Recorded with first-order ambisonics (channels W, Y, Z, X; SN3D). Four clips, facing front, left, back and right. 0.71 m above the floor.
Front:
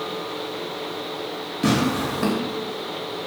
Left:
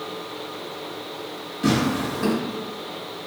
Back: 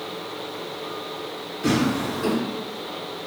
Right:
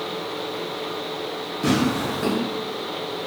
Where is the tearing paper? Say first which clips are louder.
Even, front 1 dB; 5° right, 0.9 m.